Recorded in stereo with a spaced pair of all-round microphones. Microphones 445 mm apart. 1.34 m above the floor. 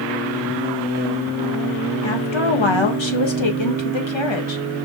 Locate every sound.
2.0 s a woman speaking: 80° left, 1.4 m